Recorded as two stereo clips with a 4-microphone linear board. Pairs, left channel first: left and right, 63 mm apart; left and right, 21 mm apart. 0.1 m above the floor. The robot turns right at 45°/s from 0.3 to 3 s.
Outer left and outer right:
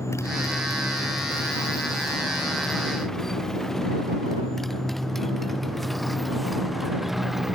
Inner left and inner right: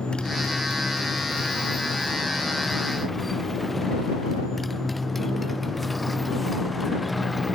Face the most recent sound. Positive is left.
turn(degrees=-5)  # may be behind; listen again after turning